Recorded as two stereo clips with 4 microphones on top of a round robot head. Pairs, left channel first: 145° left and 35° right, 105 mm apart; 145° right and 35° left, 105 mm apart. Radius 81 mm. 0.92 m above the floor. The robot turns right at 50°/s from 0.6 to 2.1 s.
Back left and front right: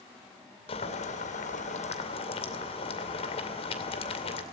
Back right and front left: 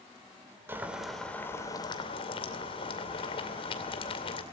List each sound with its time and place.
0.7 s boiling: 105° left, 2.5 m; by 4.4 s 175° left, 2.5 m